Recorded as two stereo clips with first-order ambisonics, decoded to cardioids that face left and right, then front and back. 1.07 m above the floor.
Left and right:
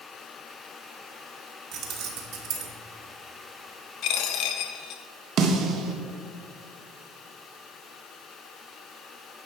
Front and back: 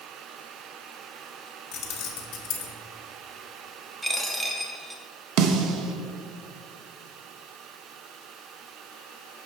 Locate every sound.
1.7 s keys jangling: 45° right, 1.1 m
4.0 s a dropped coin: 95° left, 0.6 m
5.4 s a snare drum: 145° right, 0.8 m